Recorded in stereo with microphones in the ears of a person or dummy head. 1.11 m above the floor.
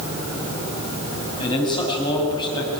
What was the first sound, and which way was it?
A man speaking, 20° left (ahead or behind).